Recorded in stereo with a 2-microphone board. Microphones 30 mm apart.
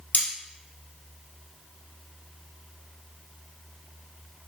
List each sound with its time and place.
0.1 s cutlery clinking: 60° left (ahead or behind), 1.7 m